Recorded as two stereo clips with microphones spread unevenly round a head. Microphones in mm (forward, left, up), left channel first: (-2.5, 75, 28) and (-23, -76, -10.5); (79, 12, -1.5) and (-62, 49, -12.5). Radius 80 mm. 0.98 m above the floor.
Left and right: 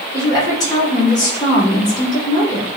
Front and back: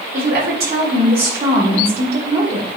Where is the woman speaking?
150° left, 3.5 m.